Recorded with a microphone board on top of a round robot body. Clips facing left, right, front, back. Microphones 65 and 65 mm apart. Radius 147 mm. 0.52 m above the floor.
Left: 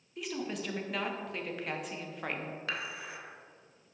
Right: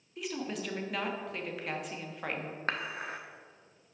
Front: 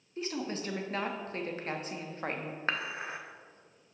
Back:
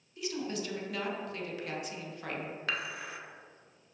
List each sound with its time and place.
0.2 s a woman speaking: straight ahead, 1.2 m
2.7 s dishes clattering: 55° right, 0.9 m